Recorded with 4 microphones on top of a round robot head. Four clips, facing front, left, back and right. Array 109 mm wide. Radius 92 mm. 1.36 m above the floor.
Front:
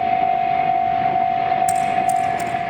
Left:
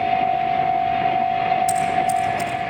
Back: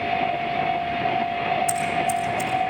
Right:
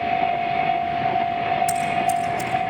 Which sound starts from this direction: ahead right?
Scissors, at 1.7 s.